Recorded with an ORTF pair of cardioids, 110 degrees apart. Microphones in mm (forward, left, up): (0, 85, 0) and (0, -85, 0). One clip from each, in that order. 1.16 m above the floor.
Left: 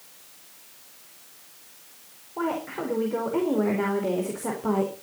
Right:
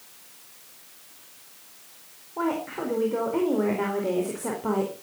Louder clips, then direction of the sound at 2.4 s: Right 1 dB; 5° left.